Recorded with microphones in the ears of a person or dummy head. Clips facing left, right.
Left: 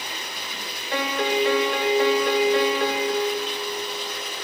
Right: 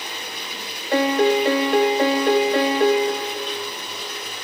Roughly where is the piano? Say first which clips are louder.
Right 7 dB; right.